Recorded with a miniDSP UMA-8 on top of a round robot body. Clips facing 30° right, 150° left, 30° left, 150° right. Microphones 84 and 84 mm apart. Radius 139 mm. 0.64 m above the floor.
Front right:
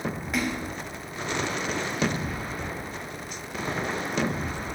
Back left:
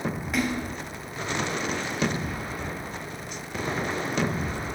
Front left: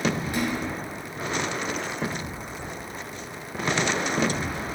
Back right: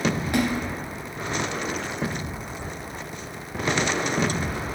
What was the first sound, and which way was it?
A splash, 120° right.